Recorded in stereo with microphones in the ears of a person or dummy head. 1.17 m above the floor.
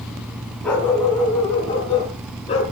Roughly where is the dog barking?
Centre.